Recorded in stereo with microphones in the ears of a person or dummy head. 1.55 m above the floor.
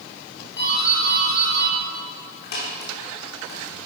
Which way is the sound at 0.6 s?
55° left (ahead or behind).